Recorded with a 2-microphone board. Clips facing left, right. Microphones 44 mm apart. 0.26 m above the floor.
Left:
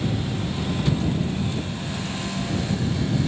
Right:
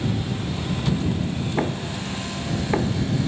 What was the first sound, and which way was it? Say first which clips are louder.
Knocking: right 4 dB; 85° right.